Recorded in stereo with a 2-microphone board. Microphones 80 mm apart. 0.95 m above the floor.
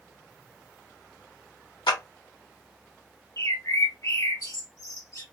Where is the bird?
45° left (ahead or behind), 1.3 m.